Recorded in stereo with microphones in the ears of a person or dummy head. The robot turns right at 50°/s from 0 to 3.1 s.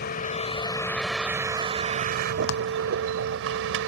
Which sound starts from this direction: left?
A clap, at 2.5 s.